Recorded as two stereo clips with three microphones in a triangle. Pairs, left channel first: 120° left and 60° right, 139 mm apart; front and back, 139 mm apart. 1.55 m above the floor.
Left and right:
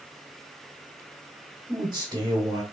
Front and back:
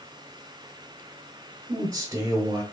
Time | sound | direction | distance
1.7 | a man speaking | 115° right | 1.0 m